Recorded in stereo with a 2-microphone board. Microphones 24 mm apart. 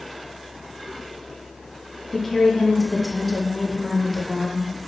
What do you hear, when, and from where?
2.1 s a woman speaking: 15° left (ahead or behind), 0.6 m